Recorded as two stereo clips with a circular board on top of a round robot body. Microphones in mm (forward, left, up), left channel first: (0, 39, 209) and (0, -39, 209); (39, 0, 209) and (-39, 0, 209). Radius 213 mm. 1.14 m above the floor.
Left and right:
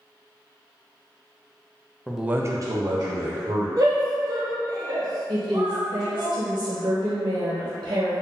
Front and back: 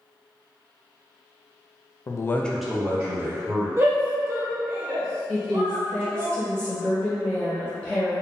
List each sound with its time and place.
2.1 s a man speaking: 5° left, 0.7 m; by 3.7 s 120° right, 1.5 m
3.8 s a shout: 125° right, 1.4 m
5.3 s a woman speaking: 85° right, 1.0 m